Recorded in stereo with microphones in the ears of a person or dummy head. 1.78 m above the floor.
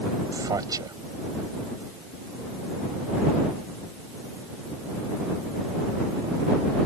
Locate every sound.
0.3 s a man speaking: 20° right (ahead or behind)